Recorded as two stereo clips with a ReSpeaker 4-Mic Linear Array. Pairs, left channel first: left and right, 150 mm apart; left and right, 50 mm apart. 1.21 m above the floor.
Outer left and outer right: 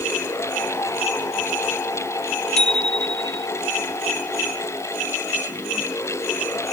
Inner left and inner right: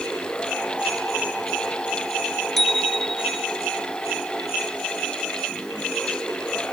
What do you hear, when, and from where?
2.6 s a bicycle bell: 5° left (ahead or behind)